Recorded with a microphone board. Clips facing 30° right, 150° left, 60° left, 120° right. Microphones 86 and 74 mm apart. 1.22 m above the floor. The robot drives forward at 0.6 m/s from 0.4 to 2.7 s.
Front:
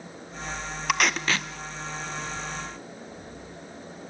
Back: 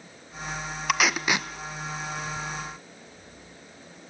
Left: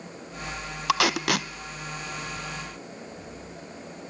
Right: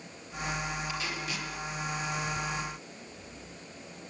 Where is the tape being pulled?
60° left, 1.0 m; by 1.5 s 80° left, 0.9 m.